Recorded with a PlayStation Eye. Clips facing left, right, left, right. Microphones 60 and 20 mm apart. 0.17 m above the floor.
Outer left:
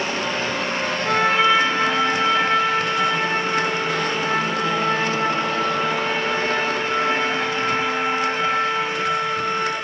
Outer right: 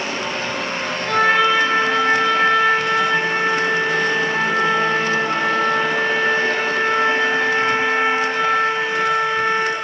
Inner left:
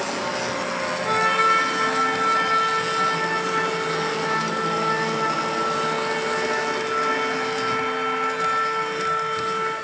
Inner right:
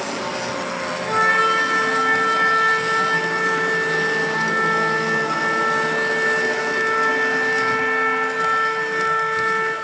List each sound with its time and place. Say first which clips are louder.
1.1 s a trumpet: outer right 2 dB, inner right 2 dB; 20° left (ahead or behind), 1.2 m